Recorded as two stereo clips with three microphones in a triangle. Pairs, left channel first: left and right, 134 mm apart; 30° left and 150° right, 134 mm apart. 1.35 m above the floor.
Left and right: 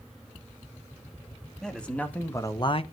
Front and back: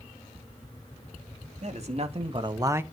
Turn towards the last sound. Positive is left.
turn(degrees=135)